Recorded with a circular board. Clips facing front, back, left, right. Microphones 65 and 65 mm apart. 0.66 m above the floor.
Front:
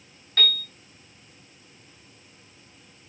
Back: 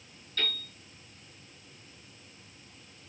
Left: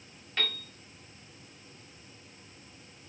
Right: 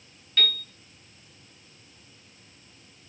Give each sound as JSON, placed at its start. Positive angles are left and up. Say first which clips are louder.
{"t": 0.4, "sound": "a piano", "louder": "front 8 dB, right 6 dB", "azimuth_deg": 15, "distance_m": 1.5}